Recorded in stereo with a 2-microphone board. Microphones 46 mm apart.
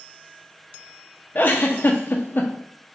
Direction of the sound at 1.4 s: 50° left (ahead or behind).